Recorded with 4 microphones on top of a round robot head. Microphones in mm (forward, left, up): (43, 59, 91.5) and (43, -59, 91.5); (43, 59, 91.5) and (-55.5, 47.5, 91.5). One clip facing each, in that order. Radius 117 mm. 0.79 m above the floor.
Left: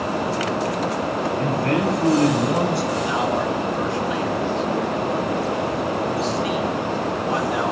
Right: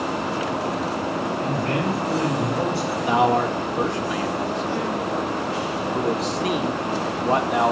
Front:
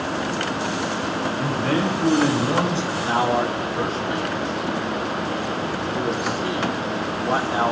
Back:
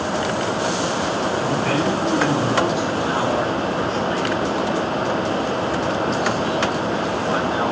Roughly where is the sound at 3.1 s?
Ahead right.